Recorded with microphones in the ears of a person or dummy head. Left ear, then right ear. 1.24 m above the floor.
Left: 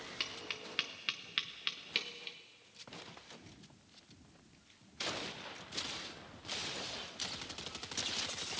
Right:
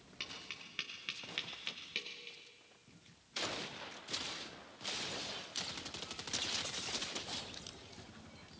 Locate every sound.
0.2 s tapping: 30° left (ahead or behind), 1.0 m